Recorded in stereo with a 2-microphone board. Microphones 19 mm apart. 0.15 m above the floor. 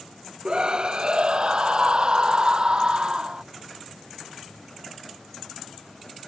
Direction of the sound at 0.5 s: 45° right (ahead or behind).